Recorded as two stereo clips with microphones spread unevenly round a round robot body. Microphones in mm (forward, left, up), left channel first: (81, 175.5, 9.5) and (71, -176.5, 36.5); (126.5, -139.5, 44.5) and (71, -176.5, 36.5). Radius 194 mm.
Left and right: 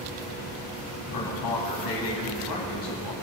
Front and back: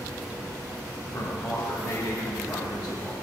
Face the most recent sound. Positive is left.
turn(degrees=120)